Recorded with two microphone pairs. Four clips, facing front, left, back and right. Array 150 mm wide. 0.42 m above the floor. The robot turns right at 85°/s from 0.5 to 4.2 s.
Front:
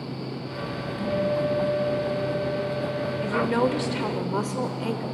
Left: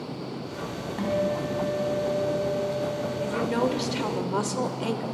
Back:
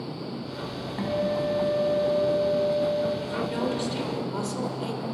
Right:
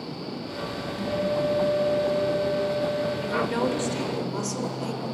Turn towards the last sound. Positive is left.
turn(degrees=55)